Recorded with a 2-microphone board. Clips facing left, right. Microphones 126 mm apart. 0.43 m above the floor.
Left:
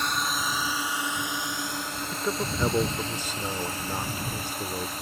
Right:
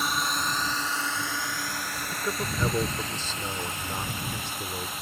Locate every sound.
0.0 s a drone: 5° right (ahead or behind); by 5.0 s 40° left (ahead or behind)
2.1 s a man speaking: 15° left (ahead or behind)